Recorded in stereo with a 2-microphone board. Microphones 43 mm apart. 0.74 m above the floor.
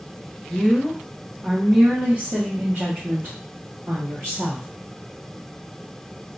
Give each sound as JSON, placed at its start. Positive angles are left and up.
{"t": 0.5, "sound": "a woman speaking", "side_deg": 15, "distance_m": 1.0}